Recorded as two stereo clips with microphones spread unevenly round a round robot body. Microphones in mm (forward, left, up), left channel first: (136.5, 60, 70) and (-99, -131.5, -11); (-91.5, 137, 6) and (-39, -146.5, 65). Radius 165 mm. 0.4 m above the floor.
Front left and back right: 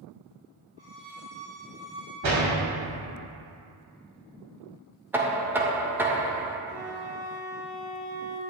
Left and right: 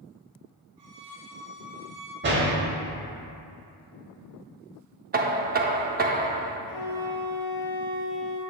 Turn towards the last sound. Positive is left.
turn(degrees=150)